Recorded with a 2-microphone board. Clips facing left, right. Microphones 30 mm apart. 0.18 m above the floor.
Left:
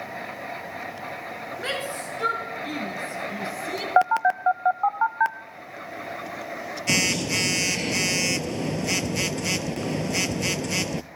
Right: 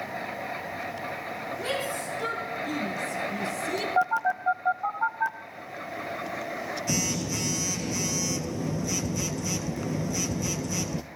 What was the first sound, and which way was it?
A shout, 45° left (ahead or behind).